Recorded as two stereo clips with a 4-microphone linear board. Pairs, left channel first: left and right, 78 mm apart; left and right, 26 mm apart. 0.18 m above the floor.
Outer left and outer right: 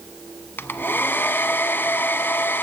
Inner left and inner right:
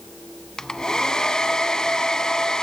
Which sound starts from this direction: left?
A hair dryer, at 0.6 s.